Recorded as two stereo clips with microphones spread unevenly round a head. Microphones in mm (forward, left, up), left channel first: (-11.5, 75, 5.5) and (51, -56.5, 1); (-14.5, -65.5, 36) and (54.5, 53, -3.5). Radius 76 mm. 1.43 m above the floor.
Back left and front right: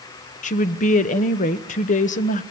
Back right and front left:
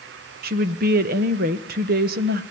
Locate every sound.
0.4 s a woman speaking: 75° left, 1.5 m